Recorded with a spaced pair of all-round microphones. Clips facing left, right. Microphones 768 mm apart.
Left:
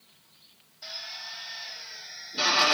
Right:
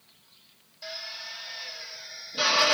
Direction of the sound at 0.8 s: 10° right (ahead or behind).